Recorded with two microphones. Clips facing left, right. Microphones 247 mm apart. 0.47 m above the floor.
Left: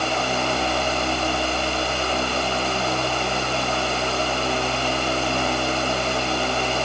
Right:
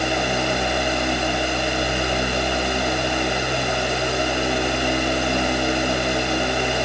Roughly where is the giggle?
No giggle in this recording.